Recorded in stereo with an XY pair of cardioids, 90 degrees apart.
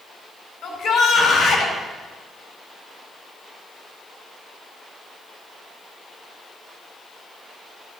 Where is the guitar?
I don't hear a guitar.